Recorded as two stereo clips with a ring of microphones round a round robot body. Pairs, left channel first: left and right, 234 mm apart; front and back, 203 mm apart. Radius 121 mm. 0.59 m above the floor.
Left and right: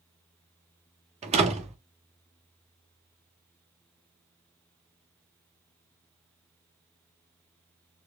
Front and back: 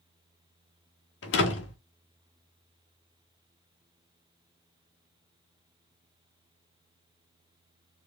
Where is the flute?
No flute in this recording.